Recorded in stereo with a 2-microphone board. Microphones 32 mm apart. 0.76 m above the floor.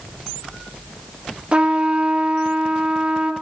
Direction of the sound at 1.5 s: 35° right (ahead or behind).